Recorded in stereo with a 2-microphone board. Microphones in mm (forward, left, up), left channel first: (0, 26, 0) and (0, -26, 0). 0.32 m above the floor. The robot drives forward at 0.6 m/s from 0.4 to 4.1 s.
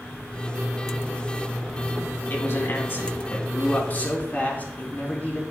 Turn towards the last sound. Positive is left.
turn(degrees=35)  # may be behind; listen again after turning